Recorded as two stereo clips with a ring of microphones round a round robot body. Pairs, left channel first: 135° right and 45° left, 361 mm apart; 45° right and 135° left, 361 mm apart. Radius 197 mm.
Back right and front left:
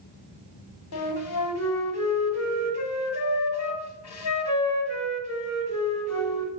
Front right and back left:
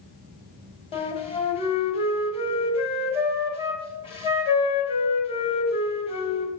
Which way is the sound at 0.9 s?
115° right.